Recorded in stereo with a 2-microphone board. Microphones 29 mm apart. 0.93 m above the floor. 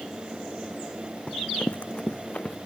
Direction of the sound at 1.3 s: 40° left (ahead or behind).